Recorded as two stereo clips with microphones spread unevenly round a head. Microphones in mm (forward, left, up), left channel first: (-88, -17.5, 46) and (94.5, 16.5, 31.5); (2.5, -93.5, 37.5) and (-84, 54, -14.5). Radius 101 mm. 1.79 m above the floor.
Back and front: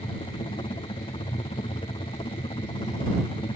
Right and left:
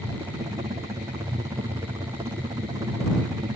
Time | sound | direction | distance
0.0 | a helicopter | 140° left | ?